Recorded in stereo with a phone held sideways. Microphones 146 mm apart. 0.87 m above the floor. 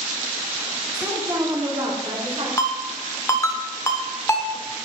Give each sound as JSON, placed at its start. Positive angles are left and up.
{"t": 0.9, "sound": "a woman speaking", "side_deg": -5, "distance_m": 1.6}
{"t": 2.6, "sound": "a ringtone", "side_deg": 20, "distance_m": 0.7}